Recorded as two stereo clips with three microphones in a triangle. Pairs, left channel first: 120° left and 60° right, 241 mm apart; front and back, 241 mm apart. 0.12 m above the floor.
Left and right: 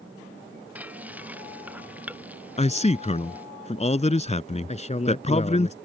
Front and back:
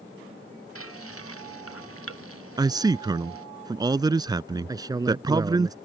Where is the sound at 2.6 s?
125° left.